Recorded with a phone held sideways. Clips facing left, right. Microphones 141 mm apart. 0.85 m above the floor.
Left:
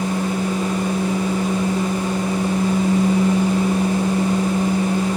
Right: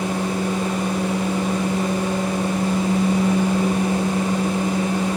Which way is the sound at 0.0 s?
60° right (ahead or behind).